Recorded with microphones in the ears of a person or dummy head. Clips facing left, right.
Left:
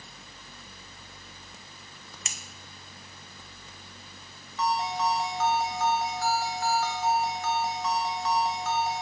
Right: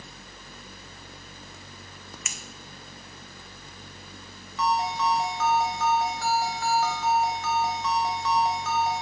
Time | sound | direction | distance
2.2 | scissors | 30° left (ahead or behind) | 0.8 m
4.6 | a ringtone | 70° right (ahead or behind) | 1.5 m